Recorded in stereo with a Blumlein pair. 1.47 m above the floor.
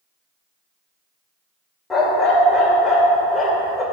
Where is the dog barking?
15° left, 2.5 m.